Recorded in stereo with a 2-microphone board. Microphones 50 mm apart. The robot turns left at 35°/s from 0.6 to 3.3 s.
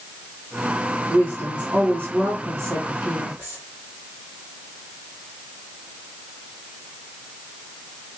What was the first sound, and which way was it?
A woman speaking, 30° right.